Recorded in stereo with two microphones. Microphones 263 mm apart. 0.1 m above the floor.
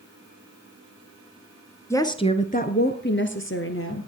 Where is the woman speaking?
10° left (ahead or behind), 1.4 m; by 4.1 s 55° left (ahead or behind), 2.5 m.